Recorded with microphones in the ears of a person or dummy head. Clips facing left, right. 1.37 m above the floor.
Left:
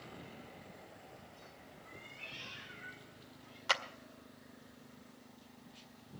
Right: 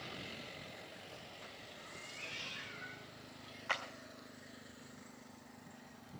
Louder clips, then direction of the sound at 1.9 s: Right 1 dB; 35° right (ahead or behind).